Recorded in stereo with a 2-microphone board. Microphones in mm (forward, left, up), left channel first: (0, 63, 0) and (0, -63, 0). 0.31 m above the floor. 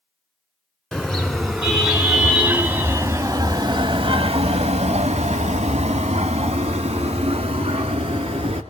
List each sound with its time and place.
0.9 s a car horn: 5° left (ahead or behind), 2 m; by 8.6 s 45° right (ahead or behind), 2.5 m